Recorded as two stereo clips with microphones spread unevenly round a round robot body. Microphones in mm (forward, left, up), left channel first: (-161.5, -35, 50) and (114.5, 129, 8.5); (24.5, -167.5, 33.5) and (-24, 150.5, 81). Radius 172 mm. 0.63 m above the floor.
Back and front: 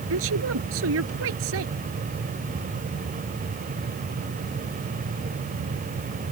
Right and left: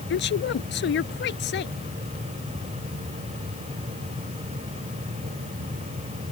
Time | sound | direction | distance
0.1 | a woman speaking | 25° right | ?